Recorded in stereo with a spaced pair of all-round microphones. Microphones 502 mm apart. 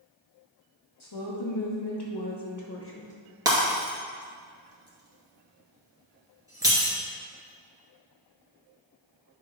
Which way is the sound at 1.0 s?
65° left (ahead or behind).